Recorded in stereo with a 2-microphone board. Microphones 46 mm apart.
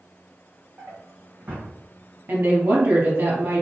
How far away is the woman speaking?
About 1.9 m.